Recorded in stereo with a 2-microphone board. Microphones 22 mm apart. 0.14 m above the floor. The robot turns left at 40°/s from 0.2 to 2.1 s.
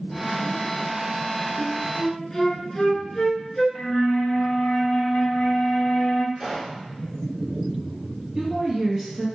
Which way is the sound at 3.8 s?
65° left (ahead or behind).